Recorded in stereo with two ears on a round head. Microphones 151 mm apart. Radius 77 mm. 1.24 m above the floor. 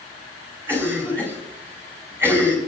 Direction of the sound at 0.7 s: 15° right (ahead or behind).